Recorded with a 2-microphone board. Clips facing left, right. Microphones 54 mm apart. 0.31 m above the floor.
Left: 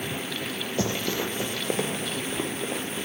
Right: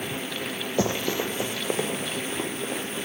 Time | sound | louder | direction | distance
0.8 | running footsteps | right 3 dB | 25° right (ahead or behind) | 1.0 m